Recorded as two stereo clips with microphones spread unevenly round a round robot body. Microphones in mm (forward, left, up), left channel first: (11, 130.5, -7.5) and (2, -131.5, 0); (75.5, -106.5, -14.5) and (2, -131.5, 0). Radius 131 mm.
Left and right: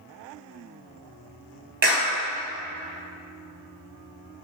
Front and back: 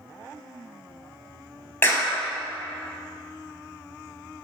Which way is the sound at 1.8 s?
45° right.